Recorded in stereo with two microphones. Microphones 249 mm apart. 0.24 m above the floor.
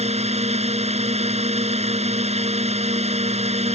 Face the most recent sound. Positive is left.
turn(degrees=-25)  # may be behind; listen again after turning